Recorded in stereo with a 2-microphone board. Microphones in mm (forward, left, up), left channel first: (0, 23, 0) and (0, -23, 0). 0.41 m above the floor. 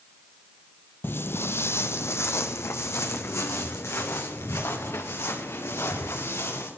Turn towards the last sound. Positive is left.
turn(degrees=80)